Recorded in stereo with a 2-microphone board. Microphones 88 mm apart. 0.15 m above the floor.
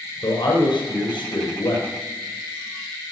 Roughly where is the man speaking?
Left.